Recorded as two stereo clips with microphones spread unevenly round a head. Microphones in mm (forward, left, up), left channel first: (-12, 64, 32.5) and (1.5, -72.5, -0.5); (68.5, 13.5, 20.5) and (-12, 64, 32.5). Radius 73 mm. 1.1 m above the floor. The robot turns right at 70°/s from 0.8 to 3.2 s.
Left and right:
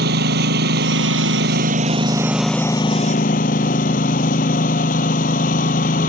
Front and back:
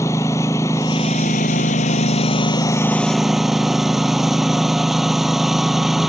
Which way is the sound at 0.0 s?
105° right.